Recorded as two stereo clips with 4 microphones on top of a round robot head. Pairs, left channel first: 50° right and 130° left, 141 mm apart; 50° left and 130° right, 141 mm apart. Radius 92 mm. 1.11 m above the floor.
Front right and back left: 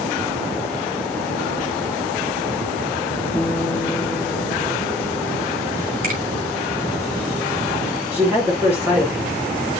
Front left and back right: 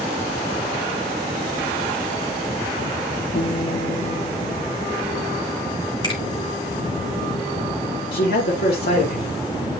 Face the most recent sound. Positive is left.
turn(degrees=55)